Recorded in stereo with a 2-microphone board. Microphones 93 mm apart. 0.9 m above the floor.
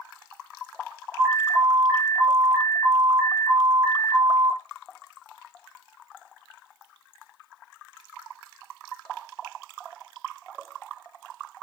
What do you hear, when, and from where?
1.2 s an alarm: 25° right (ahead or behind), 1.0 m